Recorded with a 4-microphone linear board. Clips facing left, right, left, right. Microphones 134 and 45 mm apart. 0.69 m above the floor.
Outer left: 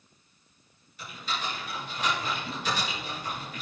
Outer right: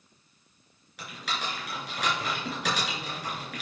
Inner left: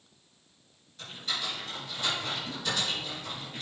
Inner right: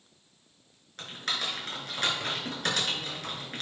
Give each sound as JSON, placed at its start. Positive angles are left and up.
{"t": 1.0, "sound": "typing on a keyboard", "side_deg": -80, "distance_m": 4.0}